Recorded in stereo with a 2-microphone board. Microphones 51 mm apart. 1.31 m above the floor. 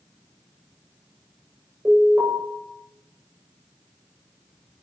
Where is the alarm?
60° right (ahead or behind), 7 m.